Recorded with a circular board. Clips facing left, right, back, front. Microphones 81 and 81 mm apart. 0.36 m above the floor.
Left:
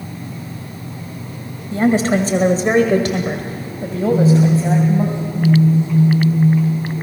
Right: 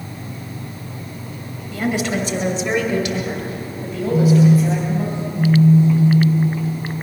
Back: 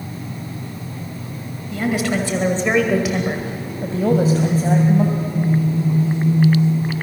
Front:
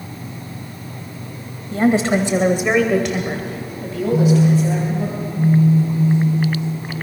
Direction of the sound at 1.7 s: 40° left.